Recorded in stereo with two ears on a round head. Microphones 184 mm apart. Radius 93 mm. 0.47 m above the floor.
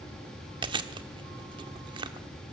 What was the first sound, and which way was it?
Chewing, 25° right (ahead or behind).